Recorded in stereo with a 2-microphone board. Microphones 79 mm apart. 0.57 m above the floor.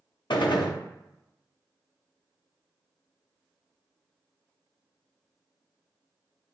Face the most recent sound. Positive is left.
turn(degrees=75)  # may be behind; listen again after turning